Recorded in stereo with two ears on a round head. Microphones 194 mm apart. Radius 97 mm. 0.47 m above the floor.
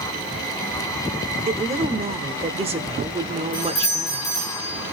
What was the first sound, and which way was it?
A woman speaking, 30° right (ahead or behind).